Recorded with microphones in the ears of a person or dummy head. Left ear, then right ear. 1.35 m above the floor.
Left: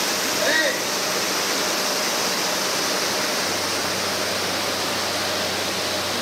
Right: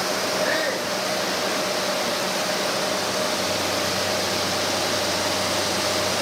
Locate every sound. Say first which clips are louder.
0.4 s a shout: left 3 dB; 40° left (ahead or behind), 2 m